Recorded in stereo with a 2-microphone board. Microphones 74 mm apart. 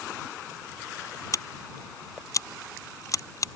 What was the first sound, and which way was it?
Scissors, 50° left (ahead or behind).